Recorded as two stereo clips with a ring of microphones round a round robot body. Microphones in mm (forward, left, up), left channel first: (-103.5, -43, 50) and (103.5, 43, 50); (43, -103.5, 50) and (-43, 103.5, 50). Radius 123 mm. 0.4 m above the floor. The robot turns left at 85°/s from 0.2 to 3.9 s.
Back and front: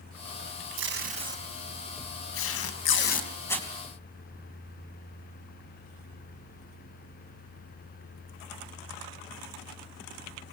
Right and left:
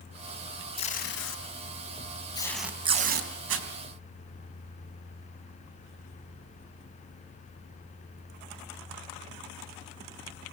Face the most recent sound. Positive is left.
turn(degrees=90)